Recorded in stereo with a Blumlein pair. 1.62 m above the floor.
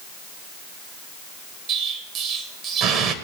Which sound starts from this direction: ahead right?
An explosion, at 1.7 s.